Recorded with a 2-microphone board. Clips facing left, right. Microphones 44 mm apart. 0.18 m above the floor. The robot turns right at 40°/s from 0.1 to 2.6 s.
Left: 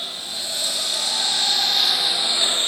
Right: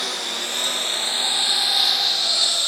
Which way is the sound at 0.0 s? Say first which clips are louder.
Right 4 dB; 65° right (ahead or behind).